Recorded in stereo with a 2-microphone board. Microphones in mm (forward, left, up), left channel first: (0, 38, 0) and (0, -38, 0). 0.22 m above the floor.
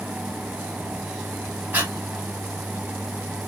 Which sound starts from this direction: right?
Breathing, at 1.7 s.